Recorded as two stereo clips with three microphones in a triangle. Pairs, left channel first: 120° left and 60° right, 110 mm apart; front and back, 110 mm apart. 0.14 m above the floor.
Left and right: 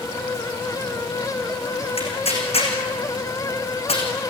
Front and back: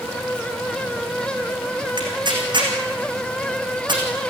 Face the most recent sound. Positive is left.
turn(degrees=135)